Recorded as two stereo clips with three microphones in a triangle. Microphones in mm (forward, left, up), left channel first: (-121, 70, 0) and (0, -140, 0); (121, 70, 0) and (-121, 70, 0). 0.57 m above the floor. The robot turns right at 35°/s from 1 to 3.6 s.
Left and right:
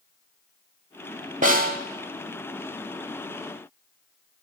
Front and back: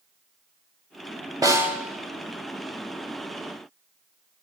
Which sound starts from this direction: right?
A snare drum, at 1.4 s.